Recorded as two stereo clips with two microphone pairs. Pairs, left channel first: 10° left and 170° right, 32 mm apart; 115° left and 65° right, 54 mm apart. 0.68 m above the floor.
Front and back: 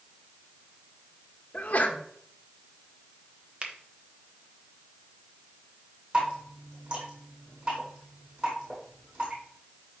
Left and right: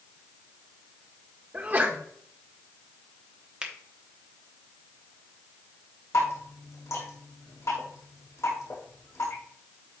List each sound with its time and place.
1.5 s a sneeze: 20° right, 1.3 m
3.6 s a finger snap: 130° right, 1.1 m
6.1 s dripping: 140° left, 4.5 m